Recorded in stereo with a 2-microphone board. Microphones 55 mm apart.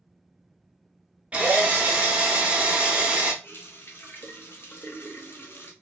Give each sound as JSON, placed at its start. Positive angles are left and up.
{"t": 1.3, "sound": "a drill", "side_deg": -20, "distance_m": 0.8}
{"t": 3.4, "sound": "a running tap", "side_deg": 45, "distance_m": 0.7}